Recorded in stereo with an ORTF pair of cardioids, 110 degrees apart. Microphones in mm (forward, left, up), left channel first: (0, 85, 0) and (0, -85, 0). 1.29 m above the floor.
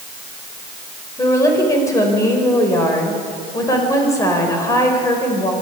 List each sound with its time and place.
1.2 s a woman speaking: 20° left, 5 m